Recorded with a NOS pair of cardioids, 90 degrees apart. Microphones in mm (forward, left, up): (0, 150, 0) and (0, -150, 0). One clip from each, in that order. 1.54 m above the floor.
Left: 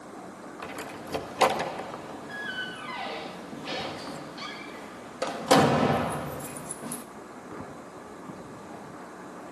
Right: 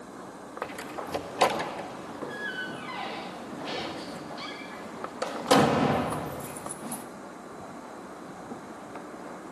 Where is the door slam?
10° left, 1.7 m.